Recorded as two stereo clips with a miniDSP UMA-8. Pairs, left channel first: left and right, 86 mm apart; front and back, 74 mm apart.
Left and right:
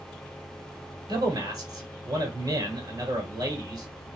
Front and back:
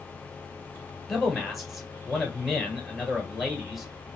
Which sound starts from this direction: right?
A man speaking, at 1.1 s.